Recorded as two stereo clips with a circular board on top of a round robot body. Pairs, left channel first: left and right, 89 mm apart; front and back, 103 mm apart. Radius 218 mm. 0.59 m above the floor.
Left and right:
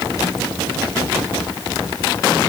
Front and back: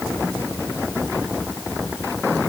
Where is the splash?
No splash in this recording.